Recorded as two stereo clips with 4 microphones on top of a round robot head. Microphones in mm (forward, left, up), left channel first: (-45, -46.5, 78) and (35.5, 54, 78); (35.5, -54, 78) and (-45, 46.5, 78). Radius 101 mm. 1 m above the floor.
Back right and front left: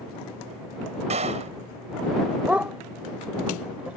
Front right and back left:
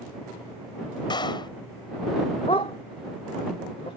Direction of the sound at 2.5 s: 25° right.